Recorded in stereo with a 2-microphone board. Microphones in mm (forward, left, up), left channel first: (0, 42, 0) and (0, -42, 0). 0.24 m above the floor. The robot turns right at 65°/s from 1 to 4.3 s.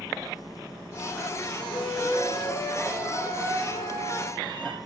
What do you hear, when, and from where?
1.7 s a flute: 80° left, 2 m; by 4.8 s 110° right, 2 m